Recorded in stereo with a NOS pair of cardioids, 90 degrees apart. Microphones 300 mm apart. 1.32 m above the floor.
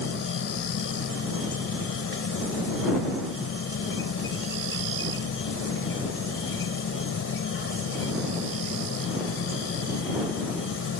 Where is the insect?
50° left.